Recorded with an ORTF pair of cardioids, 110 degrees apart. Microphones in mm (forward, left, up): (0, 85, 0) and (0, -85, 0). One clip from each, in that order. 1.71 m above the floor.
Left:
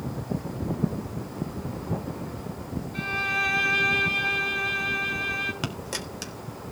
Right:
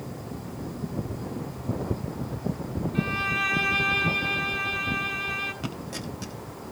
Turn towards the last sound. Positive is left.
turn(degrees=55)